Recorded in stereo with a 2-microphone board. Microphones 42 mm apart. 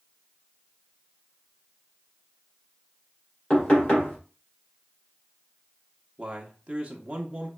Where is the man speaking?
35° right (ahead or behind), 0.7 m.